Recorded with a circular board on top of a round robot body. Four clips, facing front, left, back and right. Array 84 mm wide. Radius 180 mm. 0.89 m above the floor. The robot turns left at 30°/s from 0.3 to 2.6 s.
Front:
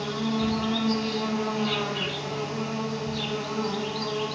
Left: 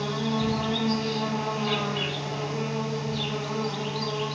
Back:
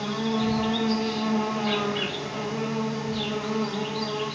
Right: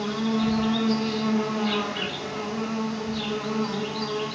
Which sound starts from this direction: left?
An insect, at 0.0 s.